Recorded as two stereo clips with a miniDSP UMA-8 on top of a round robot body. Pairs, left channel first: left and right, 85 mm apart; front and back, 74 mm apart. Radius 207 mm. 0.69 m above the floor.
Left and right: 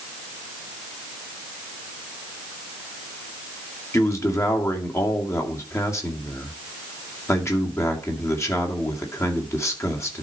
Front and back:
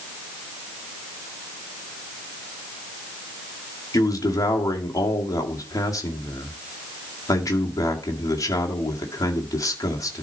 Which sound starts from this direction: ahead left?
A man speaking, at 3.9 s.